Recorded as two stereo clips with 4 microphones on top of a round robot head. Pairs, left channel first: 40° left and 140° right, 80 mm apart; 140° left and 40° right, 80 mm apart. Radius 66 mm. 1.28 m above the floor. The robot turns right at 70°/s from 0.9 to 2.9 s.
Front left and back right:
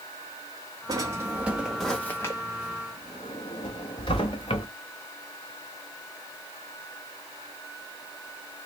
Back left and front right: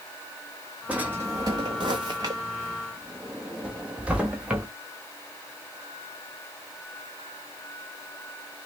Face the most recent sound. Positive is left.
turn(degrees=30)